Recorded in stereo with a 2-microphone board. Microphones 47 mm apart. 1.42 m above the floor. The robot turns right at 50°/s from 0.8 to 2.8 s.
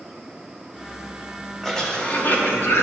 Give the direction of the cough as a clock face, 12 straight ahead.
12 o'clock.